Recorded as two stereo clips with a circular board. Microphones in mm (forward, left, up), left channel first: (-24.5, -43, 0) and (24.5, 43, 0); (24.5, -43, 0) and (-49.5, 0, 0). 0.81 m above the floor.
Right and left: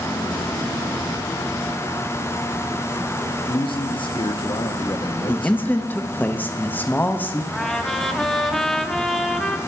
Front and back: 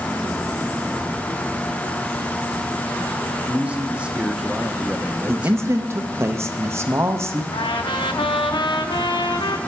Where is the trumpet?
35° right, 0.8 m.